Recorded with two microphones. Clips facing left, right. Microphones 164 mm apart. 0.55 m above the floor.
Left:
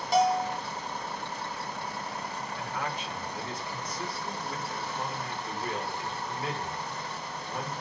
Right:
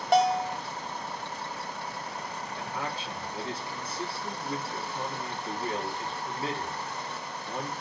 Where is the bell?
65° right (ahead or behind), 0.7 m.